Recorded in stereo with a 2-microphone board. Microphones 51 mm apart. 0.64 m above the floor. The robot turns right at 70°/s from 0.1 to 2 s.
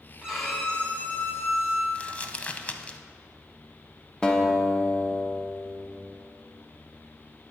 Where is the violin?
15° right, 2 m; by 1.9 s 100° left, 2 m.